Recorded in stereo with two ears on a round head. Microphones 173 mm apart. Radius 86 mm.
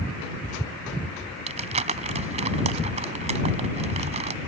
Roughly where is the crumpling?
Right.